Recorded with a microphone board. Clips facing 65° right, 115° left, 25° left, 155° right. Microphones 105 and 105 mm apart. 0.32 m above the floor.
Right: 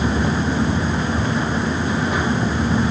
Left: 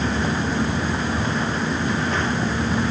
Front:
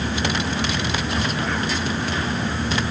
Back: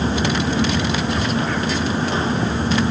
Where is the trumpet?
No trumpet in this recording.